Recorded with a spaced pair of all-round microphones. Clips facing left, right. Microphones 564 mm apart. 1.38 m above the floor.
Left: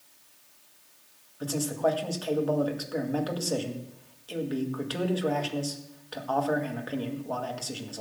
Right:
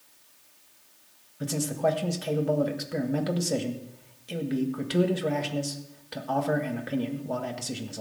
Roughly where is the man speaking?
Right.